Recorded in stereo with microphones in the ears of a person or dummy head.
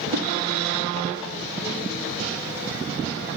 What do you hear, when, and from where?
0.1 s a whoosh: 60° right (ahead or behind), 1.9 m